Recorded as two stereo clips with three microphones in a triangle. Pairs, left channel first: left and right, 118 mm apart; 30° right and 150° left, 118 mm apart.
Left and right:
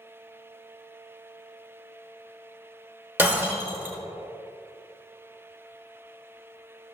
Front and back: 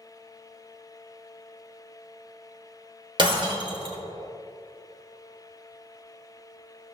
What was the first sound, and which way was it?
Breaking glass, 165° right.